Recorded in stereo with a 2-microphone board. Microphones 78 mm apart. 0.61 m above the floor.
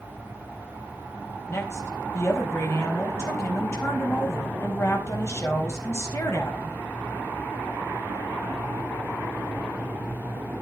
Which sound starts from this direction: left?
A woman speaking, at 1.5 s.